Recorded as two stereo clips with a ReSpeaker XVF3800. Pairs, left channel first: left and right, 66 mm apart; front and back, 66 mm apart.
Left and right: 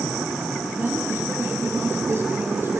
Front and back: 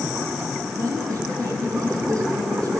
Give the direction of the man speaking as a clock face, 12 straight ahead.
5 o'clock.